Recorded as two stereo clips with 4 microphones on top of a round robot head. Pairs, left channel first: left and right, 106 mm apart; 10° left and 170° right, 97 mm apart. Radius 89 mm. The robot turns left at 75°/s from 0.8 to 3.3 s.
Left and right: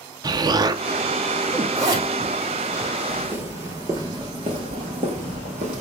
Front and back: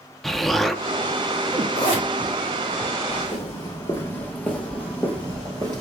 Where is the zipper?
30° right, 2.5 m; by 2.9 s 115° right, 2.5 m.